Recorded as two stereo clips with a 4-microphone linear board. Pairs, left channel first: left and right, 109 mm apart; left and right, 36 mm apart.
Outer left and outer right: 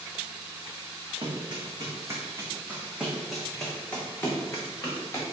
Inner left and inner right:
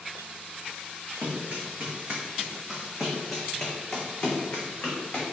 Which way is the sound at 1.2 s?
45° right (ahead or behind).